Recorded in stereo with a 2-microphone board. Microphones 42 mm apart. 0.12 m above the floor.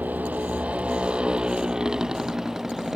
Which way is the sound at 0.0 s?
35° right (ahead or behind).